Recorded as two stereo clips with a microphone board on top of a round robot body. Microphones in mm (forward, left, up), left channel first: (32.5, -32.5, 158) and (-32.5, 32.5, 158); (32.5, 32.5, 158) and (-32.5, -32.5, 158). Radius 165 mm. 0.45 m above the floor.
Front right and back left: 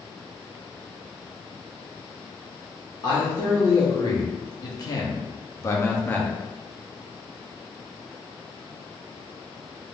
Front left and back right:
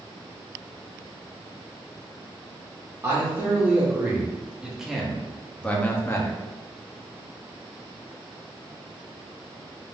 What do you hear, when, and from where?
3.0 s a man speaking: 75° right, 1.8 m; by 6.4 s 20° left, 1.0 m